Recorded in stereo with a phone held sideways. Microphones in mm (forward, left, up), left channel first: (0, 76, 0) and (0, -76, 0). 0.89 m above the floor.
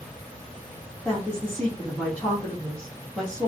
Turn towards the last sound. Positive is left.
turn(degrees=10)  # may be behind; listen again after turning